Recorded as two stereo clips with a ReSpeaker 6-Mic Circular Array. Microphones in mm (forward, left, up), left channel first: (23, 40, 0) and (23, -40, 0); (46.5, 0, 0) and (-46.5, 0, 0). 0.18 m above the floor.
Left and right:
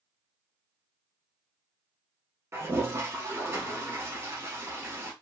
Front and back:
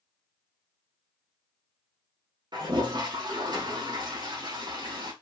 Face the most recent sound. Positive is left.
turn(degrees=-145)